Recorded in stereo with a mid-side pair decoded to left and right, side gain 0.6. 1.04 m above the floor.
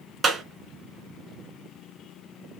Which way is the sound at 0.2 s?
35° right.